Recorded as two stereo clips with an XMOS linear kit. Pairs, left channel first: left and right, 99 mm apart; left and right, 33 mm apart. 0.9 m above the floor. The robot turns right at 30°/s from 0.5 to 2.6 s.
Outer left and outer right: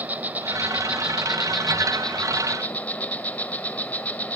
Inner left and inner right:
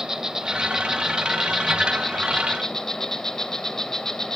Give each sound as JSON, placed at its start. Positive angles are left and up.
{"t": 0.0, "sound": "an insect", "azimuth_deg": -35, "distance_m": 0.7}